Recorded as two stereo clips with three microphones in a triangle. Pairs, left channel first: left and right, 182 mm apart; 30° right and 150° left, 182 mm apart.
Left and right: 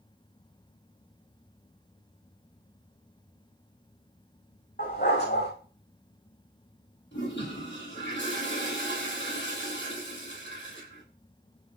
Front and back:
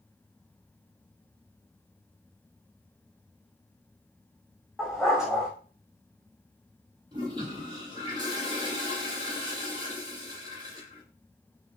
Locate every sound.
4.8 s a dog barking: 65° left, 7.5 m
7.1 s a toilet flushing: 85° left, 10 m